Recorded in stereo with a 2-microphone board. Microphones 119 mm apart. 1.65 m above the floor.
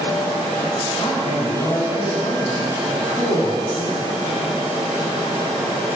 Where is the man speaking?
60° left (ahead or behind), 3 m; by 4.1 s 85° left, 3.5 m.